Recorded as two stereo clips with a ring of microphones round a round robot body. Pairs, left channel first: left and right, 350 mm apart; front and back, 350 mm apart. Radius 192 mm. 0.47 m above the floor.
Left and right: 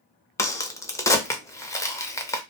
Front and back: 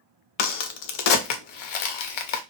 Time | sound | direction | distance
0.4 | a crack | 10° left | 0.6 m